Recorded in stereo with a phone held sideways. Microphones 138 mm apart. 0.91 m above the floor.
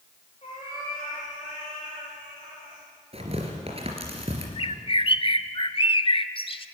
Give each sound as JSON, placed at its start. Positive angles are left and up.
{"t": 0.4, "sound": "a cat meowing", "side_deg": 45, "distance_m": 9.5}
{"t": 3.1, "sound": "tearing paper", "side_deg": -45, "distance_m": 3.5}
{"t": 4.6, "sound": "a bird", "side_deg": 40, "distance_m": 0.7}